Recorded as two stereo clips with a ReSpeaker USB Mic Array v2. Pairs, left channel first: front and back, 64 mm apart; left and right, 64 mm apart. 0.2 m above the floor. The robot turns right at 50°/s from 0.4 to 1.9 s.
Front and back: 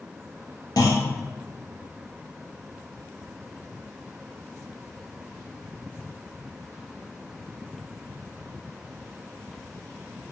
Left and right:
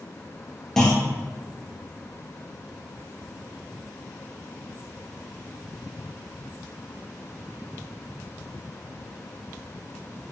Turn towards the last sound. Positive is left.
turn(degrees=65)